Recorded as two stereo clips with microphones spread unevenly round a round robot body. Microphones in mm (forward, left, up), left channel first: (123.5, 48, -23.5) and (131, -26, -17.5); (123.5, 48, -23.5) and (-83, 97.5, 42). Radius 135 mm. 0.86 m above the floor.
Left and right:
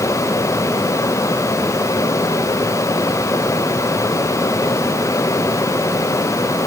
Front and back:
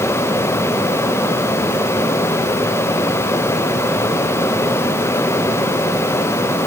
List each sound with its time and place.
Only background noise.